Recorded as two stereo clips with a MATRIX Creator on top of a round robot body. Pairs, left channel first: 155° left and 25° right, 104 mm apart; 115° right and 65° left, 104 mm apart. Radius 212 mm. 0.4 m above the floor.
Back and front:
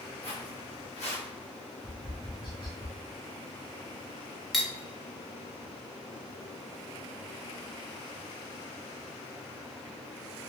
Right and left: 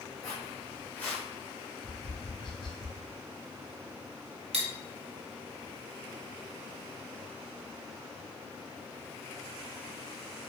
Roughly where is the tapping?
Behind.